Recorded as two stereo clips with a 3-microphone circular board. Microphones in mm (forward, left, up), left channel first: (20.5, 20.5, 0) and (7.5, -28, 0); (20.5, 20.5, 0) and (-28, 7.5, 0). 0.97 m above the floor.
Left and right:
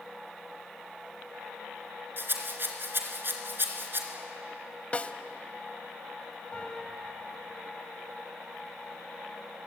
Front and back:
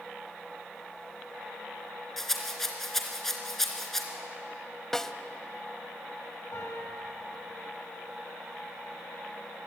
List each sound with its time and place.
2.2 s a rattle: 70° right, 2.5 m
4.9 s a snare drum: 85° left, 0.8 m
6.5 s a piano: 10° left, 5 m